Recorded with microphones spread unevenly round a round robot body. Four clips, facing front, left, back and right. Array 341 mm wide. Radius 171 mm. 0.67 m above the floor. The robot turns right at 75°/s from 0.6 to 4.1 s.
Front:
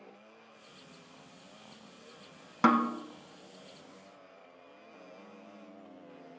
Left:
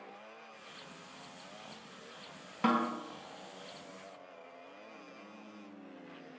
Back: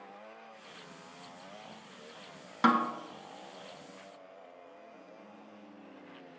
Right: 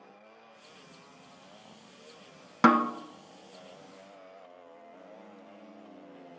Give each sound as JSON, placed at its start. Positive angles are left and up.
{"t": 2.6, "sound": "a snare drum", "azimuth_deg": -85, "distance_m": 0.5}